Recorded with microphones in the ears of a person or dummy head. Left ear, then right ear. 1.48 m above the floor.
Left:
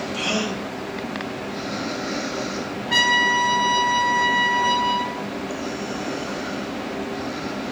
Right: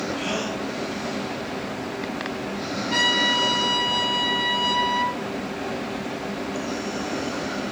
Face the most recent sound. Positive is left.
turn(degrees=25)  # may be behind; listen again after turning